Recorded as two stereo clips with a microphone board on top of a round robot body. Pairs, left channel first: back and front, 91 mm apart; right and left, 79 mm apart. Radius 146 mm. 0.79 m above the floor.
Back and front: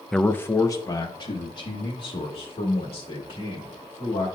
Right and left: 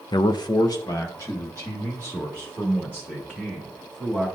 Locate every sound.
0.1 s a man speaking: 95° right, 0.5 m; by 4.3 s 160° right, 2.5 m